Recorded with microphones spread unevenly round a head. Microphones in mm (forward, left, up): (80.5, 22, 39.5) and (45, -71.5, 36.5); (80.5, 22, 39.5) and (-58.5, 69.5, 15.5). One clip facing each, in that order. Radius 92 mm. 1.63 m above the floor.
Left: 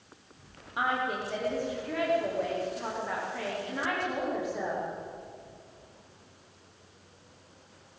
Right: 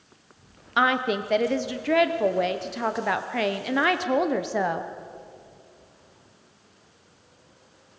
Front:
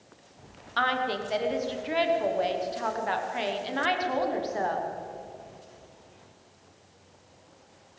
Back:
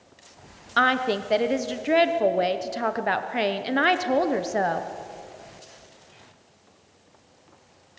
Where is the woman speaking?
150° right, 1.0 m.